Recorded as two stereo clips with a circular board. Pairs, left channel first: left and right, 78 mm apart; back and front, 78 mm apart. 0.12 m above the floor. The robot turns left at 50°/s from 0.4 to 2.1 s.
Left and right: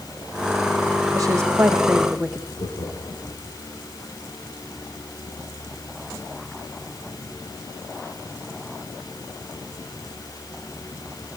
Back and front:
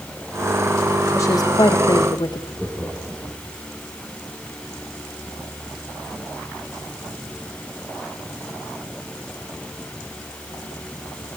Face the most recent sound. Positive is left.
turn(degrees=90)